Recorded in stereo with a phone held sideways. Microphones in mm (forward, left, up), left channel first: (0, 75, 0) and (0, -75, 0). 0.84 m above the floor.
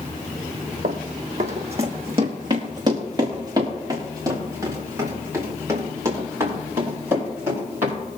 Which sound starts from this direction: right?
Running footsteps, at 0.8 s.